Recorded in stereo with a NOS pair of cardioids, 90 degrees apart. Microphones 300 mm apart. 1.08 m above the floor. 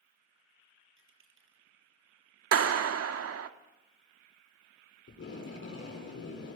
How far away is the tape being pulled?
About 7 m.